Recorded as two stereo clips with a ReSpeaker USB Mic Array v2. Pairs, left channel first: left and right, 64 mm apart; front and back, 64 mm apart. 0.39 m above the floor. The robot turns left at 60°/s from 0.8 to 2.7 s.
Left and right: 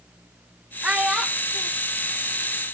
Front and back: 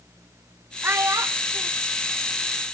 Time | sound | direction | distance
0.8 | a child speaking | 145° right | 0.7 m